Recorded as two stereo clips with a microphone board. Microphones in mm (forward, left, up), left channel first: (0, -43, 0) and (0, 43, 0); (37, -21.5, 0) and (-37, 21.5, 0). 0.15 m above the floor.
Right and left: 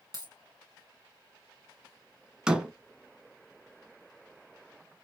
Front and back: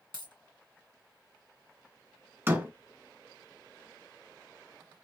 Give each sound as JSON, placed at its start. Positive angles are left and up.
{"t": 0.1, "sound": "a dropped coin", "azimuth_deg": 125, "distance_m": 2.0}
{"t": 2.5, "sound": "a door slam", "azimuth_deg": 160, "distance_m": 1.0}